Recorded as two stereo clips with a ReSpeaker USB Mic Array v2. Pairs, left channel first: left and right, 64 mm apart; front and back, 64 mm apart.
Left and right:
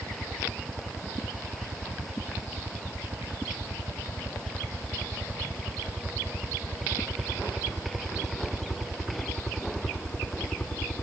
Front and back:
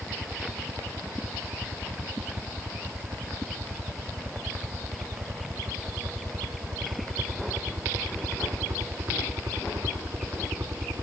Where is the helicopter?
135° right; by 11.0 s 145° left.